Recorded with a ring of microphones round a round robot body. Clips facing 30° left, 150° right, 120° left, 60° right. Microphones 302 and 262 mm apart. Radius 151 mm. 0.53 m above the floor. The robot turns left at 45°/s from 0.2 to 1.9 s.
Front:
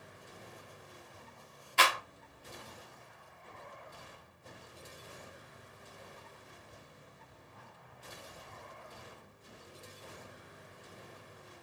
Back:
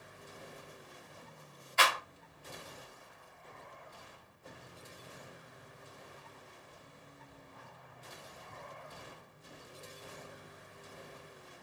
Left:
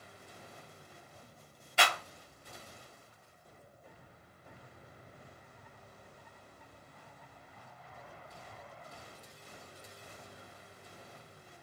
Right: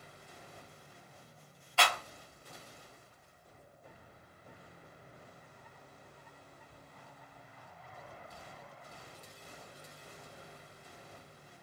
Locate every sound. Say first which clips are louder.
1.8 s a clap: front 1 dB, even; 55° left, 1.0 m; by 2.0 s 50° left, 1.0 m